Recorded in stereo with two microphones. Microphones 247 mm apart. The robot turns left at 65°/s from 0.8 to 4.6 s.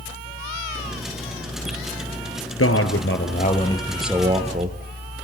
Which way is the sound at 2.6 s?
90° left.